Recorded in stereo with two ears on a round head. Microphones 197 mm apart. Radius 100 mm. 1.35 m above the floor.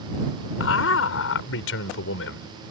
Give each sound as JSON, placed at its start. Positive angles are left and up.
{"t": 0.6, "sound": "a man speaking", "side_deg": 70}